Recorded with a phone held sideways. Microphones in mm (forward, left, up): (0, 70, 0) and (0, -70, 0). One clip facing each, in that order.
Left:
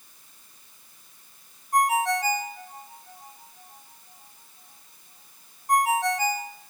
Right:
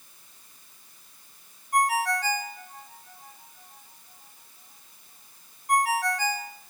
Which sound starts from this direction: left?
A ringtone, at 1.7 s.